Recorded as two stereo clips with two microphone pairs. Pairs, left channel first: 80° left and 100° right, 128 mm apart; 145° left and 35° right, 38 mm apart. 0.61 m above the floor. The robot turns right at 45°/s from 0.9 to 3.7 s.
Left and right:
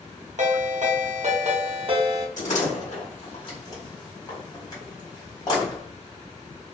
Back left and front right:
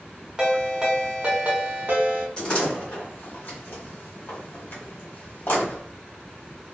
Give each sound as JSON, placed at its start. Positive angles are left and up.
{"t": 0.4, "sound": "a ringtone", "azimuth_deg": -105, "distance_m": 0.7}
{"t": 2.4, "sound": "a door slam", "azimuth_deg": 75, "distance_m": 1.3}